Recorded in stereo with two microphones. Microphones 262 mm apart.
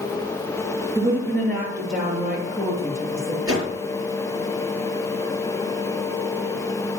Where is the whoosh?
55° right (ahead or behind), 5.5 m.